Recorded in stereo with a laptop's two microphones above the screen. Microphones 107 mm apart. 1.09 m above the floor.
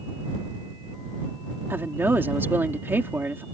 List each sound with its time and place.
1.7 s a woman speaking: 20° right (ahead or behind)